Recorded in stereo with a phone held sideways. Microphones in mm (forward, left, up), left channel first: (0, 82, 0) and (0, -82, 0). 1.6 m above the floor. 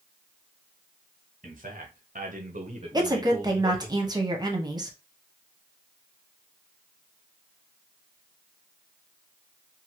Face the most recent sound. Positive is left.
turn(degrees=-25)  # may be behind; listen again after turning